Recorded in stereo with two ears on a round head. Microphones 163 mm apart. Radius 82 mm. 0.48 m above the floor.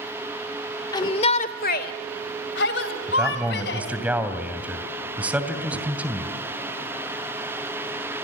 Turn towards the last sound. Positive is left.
turn(degrees=-10)  # may be behind; listen again after turning